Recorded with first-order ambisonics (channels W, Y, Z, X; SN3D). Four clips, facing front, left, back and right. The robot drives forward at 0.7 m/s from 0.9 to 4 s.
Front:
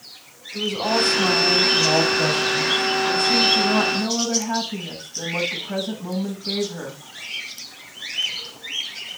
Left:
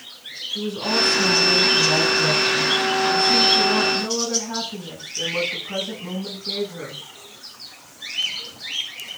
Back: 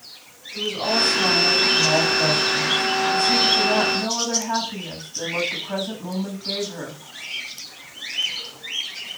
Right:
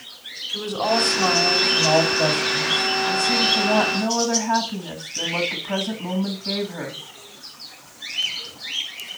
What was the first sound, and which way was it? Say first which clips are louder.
A woman speaking: right 2 dB, front 1 dB; 80° right.